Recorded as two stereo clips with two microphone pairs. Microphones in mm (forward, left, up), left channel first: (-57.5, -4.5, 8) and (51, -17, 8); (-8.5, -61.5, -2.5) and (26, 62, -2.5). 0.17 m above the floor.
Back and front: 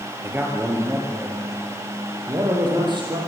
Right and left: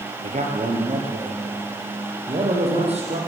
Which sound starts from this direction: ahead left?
A man speaking, at 0.2 s.